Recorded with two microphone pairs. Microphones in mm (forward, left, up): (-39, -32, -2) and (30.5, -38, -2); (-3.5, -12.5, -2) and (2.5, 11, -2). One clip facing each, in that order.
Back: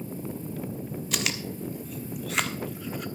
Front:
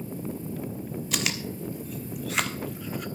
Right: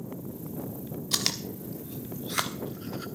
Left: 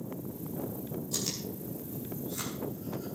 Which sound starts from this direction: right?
Chewing, at 1.1 s.